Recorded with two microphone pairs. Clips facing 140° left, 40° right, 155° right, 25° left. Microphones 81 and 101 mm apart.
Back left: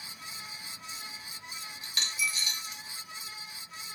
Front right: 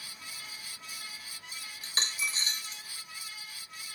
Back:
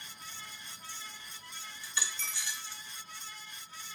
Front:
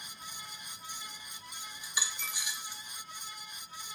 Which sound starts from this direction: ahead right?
A dropped coin, at 1.8 s.